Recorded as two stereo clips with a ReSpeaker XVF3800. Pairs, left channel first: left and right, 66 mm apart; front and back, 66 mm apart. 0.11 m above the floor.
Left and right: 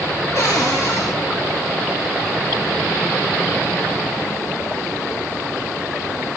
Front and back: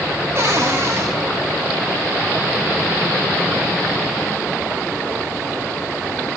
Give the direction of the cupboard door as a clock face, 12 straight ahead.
8 o'clock.